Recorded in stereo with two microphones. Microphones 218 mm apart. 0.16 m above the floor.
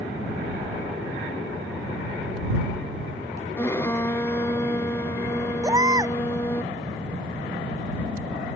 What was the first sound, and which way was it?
A violin, 10° left (ahead or behind).